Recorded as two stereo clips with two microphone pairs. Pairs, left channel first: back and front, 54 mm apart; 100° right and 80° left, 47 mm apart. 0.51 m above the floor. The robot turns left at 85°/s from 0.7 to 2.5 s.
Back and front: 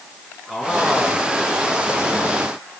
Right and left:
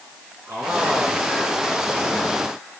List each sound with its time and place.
0.5 s a man speaking: 85° left, 5.5 m; by 2.1 s 35° right, 5.5 m